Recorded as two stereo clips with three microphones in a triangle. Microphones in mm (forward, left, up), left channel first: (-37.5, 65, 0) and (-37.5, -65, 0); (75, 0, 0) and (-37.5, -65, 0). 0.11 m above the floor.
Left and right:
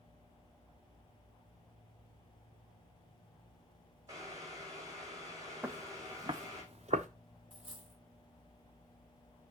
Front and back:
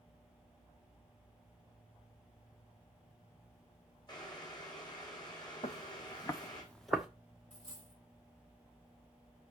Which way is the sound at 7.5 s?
Straight ahead.